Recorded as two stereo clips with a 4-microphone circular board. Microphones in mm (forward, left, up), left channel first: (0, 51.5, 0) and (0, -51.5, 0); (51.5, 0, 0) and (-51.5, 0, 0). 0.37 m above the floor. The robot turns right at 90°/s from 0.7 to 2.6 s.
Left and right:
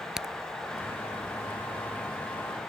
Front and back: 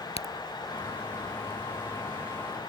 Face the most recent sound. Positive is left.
turn(degrees=165)